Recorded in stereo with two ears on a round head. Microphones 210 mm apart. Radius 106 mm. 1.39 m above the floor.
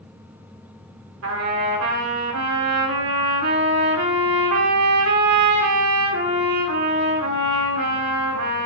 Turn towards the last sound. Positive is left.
turn(degrees=-60)  # may be behind; listen again after turning